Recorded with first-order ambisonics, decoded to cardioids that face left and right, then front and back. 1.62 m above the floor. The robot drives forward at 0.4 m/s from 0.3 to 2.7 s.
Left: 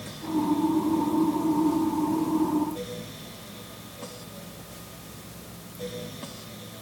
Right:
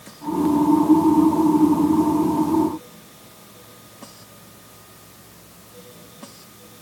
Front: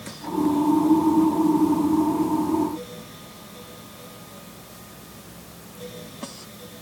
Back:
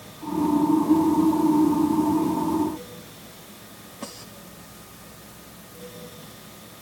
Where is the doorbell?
No doorbell in this recording.